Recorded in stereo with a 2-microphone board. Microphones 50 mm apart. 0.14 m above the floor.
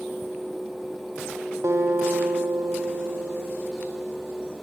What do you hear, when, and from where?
1.6 s a guitar: 70° right (ahead or behind), 1.8 m